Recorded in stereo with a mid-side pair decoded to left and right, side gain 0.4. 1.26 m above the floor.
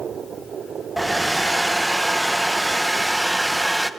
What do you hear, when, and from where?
1.0 s a hair dryer: 5° right, 0.6 m